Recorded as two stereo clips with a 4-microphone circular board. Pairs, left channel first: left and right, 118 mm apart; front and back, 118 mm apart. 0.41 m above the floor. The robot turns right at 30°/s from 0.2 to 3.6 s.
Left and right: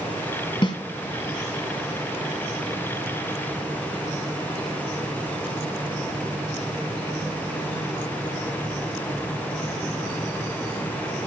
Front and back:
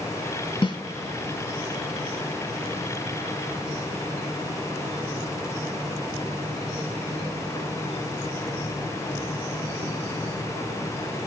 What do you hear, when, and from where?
0.6 s a snare drum: 45° left, 1.9 m; by 0.8 s 50° left, 1.9 m